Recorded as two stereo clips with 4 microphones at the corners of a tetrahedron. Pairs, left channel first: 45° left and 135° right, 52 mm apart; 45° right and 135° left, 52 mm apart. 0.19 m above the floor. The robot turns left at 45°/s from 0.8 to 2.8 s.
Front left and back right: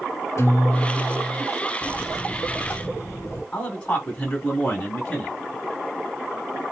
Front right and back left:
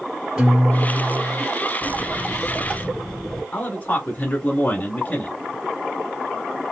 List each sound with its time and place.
0.4 s a guitar: 55° left, 3 m; by 1.5 s 25° left, 3 m
1.8 s a buzzer: 75° left, 0.9 m; by 3.4 s 30° left, 0.9 m
3.5 s a man speaking: 20° right, 2 m